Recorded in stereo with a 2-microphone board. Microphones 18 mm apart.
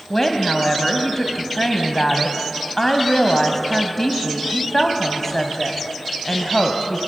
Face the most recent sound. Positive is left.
turn(degrees=20)  # may be behind; listen again after turning